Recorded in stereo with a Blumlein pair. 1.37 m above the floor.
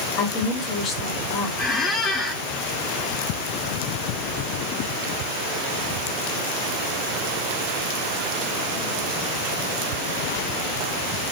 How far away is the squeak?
About 0.8 m.